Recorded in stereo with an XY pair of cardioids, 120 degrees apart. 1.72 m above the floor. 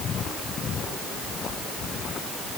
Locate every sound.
Only background noise.